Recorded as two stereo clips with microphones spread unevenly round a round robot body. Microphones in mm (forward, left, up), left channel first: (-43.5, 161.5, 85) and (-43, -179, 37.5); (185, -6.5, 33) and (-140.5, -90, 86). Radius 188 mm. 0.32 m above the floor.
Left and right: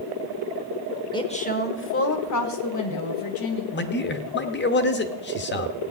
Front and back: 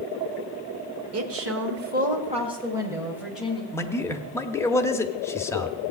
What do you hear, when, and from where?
1.1 s a woman speaking: 170° left, 1.3 m; by 3.6 s 100° left, 2 m
3.7 s a man speaking: 65° left, 0.9 m